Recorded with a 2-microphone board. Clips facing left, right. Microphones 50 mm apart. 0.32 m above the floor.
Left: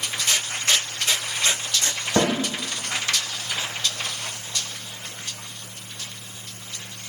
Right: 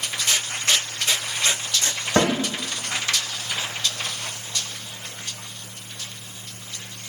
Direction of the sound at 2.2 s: 60° right (ahead or behind).